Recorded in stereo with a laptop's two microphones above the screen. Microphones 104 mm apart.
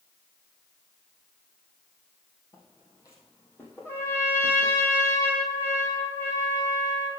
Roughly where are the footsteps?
Left.